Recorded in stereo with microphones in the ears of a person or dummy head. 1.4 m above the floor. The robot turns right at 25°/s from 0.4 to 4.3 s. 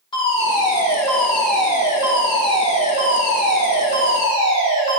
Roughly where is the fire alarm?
Behind left.